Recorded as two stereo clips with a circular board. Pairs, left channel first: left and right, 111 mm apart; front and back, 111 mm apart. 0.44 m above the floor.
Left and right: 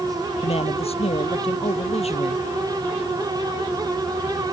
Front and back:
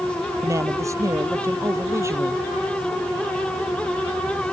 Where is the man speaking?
115° left.